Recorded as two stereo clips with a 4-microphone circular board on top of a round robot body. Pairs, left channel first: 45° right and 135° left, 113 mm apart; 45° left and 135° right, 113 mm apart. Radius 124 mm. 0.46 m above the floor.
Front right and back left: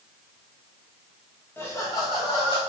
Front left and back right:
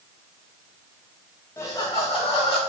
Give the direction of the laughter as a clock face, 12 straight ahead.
12 o'clock.